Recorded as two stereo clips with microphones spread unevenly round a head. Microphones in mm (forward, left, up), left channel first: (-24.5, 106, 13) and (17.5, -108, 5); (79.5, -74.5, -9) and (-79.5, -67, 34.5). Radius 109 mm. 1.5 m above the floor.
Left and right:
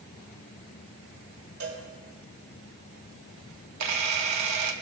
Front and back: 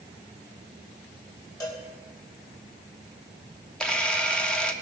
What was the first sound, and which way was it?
A cowbell, 75° right.